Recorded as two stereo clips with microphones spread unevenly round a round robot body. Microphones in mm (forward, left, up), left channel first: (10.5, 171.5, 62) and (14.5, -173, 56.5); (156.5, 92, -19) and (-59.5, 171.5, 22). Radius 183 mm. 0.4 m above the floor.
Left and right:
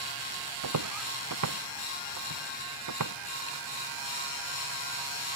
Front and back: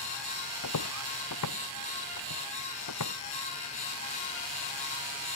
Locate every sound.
0.6 s footsteps: 45° right